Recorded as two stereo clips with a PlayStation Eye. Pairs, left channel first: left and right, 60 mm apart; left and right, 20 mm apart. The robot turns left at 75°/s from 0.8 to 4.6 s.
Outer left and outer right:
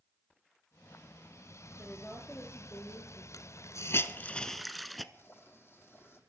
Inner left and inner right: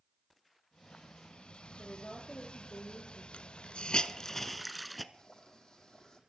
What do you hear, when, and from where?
1.8 s a woman speaking: 165° right, 4 m; by 3.2 s 90° left, 4 m
3.3 s a hiss: 70° left (ahead or behind), 0.9 m; by 5.0 s centre (ahead or behind), 0.9 m
5.1 s boiling: 40° left (ahead or behind), 5.5 m